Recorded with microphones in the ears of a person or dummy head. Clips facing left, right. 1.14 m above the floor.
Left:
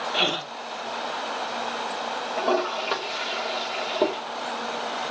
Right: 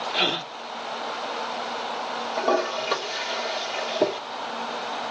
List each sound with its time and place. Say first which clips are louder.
0.1 s a gasp: left 1 dB; centre (ahead or behind), 0.8 m
2.4 s a toilet flushing: right 1 dB; 5° right (ahead or behind), 1.8 m